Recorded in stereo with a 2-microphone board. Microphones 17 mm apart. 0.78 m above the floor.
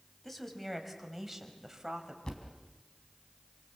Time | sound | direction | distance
0.2 | a woman speaking | 15° left (ahead or behind) | 4 m
2.2 | a thud | 45° left (ahead or behind) | 3.5 m